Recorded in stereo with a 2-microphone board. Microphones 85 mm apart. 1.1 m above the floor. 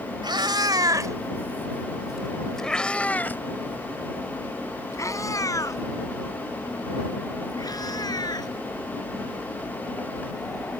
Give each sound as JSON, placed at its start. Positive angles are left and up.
{"t": 0.2, "sound": "a cat meowing", "side_deg": -65}